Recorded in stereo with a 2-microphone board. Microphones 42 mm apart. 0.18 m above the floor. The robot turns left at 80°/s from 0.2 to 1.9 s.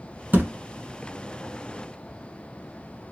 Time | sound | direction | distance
0.3 | a thud | 55° right (ahead or behind) | 1.0 m